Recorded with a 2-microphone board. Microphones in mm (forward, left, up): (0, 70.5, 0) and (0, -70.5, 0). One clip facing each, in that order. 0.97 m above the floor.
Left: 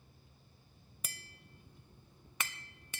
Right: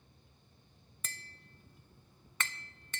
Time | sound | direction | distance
1.0 | tapping | 10° left (ahead or behind) | 0.6 m